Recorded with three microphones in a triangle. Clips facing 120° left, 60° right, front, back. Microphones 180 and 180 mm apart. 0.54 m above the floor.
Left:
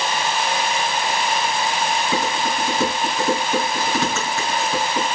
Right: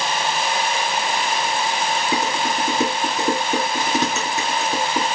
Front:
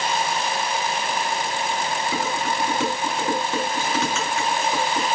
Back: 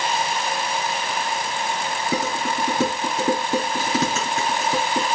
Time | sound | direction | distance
2.1 | dishes clattering | 130° right | 4 m